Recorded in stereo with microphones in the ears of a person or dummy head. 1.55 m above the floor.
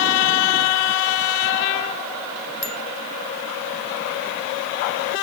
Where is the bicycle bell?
35° left (ahead or behind).